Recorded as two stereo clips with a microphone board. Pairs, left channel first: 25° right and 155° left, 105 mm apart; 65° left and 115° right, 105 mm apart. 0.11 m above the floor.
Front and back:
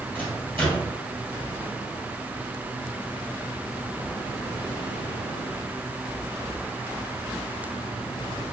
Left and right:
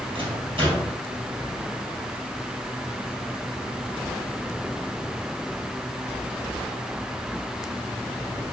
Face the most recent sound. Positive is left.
turn(degrees=-90)